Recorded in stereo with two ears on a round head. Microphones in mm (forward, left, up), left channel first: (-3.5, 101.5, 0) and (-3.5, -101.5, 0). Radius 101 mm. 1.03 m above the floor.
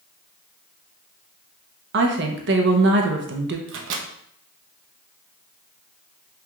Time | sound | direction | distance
1.9 | a woman speaking | 50° right (ahead or behind) | 0.7 m
3.7 | a microwave | 55° right (ahead or behind) | 0.6 m